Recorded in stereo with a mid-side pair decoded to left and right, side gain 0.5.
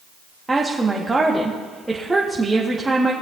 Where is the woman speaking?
15° right, 1.3 m.